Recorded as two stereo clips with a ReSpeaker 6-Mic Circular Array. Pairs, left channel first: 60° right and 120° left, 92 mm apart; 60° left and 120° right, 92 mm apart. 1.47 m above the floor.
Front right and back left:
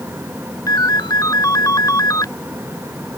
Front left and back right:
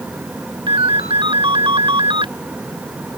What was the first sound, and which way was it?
A ringtone, 110° right.